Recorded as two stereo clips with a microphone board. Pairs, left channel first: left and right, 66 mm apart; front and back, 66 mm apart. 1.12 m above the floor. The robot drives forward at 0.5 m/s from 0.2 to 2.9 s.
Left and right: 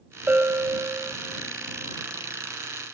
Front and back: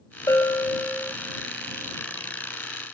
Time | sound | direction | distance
0.3 | a bell | 30° right | 1.6 m